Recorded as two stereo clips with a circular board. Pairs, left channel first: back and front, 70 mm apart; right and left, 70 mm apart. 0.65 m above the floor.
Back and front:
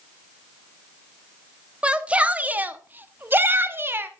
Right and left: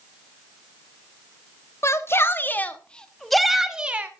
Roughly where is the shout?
Right.